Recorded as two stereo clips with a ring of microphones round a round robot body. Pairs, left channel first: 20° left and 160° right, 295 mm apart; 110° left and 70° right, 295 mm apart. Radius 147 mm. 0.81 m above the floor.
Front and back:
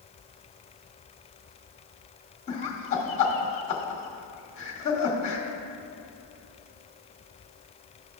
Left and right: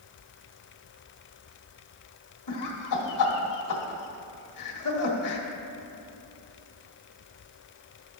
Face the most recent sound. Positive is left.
turn(degrees=90)